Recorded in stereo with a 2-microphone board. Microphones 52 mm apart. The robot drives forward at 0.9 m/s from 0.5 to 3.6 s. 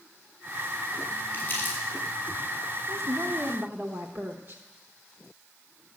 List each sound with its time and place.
1.3 s crumpling: 35° left (ahead or behind), 5 m
2.9 s a woman speaking: 80° right, 0.8 m; by 4.6 s 55° right (ahead or behind), 1.0 m